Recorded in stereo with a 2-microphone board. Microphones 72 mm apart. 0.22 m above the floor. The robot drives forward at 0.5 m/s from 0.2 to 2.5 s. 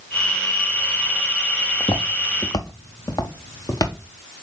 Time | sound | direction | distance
1.8 | footsteps | 70° left (ahead or behind) | 0.8 m